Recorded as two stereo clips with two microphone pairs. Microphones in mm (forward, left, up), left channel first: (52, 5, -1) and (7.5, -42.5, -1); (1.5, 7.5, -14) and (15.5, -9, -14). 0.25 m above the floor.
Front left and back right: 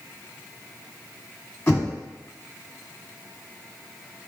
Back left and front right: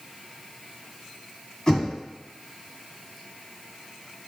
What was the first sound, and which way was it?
Knocking, 85° left.